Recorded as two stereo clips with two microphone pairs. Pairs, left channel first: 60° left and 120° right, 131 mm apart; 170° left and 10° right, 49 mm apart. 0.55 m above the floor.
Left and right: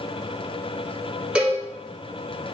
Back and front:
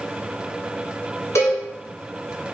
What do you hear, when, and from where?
1.4 s a cowbell: 160° left, 1.3 m